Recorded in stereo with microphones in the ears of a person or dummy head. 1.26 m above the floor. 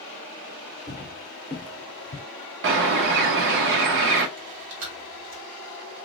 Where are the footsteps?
10° right (ahead or behind), 1.6 m; by 2.2 s 25° left (ahead or behind), 1.4 m.